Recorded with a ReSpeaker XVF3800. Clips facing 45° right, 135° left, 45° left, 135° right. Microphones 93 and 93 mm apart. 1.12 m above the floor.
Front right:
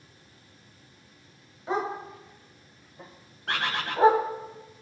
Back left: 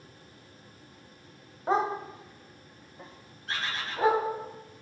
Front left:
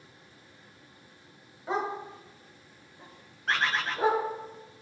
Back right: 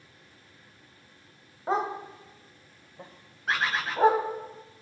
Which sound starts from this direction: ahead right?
A bird, at 3.5 s.